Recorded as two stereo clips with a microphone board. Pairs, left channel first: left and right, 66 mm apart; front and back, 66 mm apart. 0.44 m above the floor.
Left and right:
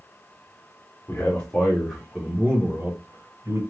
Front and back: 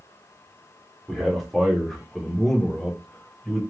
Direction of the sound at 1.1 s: 95° left.